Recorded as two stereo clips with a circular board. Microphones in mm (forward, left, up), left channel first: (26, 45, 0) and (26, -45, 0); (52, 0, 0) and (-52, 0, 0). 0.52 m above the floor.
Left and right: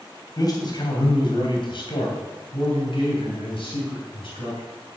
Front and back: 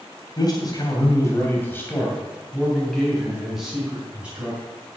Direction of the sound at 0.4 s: 45° left.